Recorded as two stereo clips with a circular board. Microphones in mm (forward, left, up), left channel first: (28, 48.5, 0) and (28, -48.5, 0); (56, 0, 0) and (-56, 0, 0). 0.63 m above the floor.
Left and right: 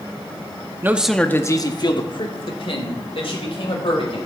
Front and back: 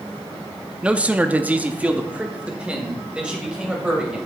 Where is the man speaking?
115° right, 0.6 m; by 4.2 s 100° left, 2.5 m.